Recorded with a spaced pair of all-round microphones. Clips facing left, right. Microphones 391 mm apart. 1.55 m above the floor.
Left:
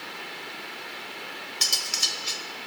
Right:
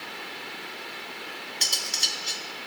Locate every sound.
1.6 s cutlery clinking: 20° left (ahead or behind), 0.6 m